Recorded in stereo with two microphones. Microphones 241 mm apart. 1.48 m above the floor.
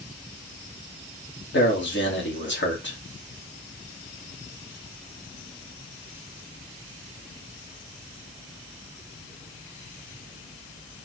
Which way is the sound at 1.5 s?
50° left (ahead or behind).